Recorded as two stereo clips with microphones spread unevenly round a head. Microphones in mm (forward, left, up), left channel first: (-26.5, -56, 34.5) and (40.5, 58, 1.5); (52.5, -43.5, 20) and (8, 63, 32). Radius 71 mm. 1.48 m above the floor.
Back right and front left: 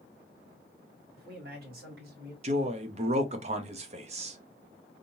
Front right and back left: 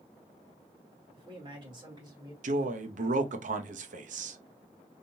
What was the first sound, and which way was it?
A man speaking, 70° left.